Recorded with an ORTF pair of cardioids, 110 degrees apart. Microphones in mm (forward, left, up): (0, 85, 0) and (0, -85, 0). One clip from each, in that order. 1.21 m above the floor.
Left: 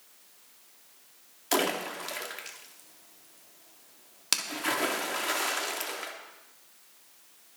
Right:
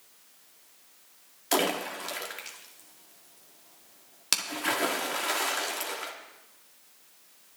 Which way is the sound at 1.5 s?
5° right.